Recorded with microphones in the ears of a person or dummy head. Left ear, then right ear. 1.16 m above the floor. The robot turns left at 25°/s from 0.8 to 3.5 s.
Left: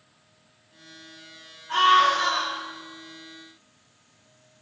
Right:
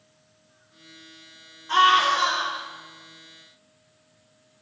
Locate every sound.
1.7 s a scream: 80° right, 2.5 m; by 2.6 s 55° right (ahead or behind), 2.5 m